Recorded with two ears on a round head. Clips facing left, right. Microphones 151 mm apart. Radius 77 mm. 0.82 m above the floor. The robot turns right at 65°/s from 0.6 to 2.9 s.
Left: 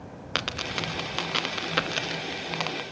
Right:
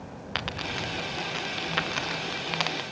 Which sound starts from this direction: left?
A dropped coin, at 0.3 s.